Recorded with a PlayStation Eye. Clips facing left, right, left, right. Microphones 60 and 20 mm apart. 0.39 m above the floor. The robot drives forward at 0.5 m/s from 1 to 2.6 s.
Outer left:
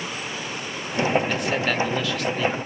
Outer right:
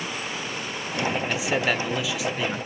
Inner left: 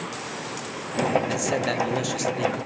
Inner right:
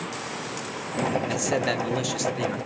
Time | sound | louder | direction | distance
1.3 | a man speaking | even, even | 5° right (ahead or behind) | 0.8 m